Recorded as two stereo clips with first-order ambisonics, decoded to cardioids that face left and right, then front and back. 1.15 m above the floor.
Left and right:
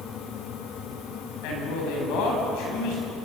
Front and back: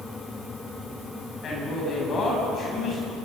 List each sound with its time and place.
1.4 s a man speaking: 65° left, 8.5 m